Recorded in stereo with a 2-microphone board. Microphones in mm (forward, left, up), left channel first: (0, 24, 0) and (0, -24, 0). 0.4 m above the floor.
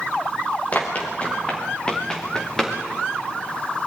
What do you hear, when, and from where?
0.7 s running footsteps: 35° left (ahead or behind), 3.5 m; by 2.8 s 10° left (ahead or behind), 4 m